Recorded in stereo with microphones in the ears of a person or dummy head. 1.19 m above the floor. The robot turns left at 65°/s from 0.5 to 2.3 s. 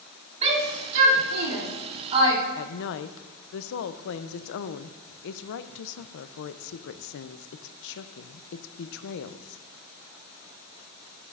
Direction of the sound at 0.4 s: 35° right (ahead or behind).